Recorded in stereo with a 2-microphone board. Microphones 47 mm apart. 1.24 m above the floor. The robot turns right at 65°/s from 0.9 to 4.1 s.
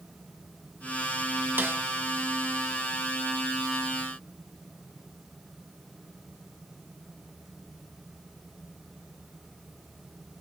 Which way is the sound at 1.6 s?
45° right (ahead or behind).